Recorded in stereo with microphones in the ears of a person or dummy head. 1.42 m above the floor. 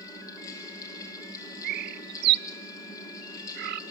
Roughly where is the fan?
Left.